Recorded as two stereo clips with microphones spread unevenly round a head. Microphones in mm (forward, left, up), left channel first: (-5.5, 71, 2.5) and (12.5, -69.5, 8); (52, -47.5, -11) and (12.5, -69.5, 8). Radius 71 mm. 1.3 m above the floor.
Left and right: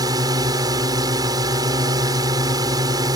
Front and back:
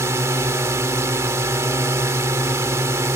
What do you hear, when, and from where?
0.0 s a drone: 150° right